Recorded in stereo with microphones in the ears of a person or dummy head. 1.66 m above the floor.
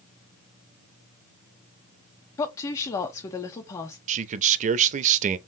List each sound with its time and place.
2.4 s a woman speaking: 15° left (ahead or behind), 0.6 m
4.1 s a man speaking: 40° right (ahead or behind), 0.5 m